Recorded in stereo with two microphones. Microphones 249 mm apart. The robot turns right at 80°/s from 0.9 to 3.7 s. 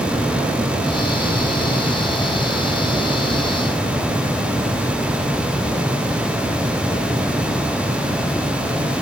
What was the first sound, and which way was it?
Only background noise.